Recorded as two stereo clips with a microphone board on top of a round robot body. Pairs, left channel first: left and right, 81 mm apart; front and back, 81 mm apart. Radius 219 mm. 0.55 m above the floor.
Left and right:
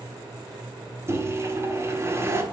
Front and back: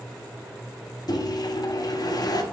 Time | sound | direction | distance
1.1 | a microwave | 35° right | 1.2 m